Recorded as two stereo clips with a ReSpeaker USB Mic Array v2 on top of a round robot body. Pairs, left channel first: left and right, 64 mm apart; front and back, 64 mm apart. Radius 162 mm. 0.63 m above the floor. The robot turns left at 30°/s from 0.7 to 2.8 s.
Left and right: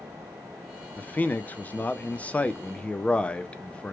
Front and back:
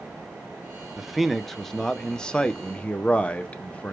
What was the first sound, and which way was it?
A man speaking, 100° left.